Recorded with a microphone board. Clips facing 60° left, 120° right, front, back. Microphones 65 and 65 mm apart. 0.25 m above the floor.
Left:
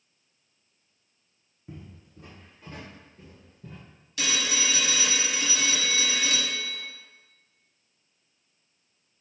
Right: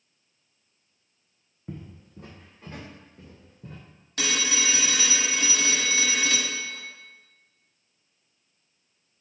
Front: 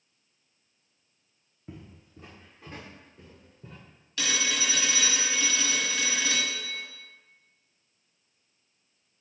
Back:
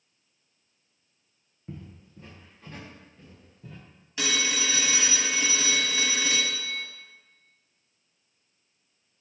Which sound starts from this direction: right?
Footsteps, at 1.7 s.